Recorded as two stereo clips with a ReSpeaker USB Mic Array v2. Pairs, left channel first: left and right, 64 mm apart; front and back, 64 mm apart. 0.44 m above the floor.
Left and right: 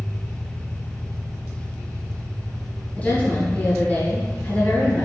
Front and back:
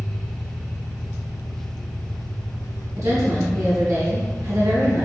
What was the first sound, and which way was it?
An engine running, 5° left.